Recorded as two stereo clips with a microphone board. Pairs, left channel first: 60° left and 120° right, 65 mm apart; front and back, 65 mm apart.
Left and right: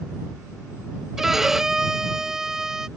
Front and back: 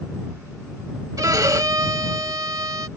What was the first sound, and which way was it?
A violin, 155° left.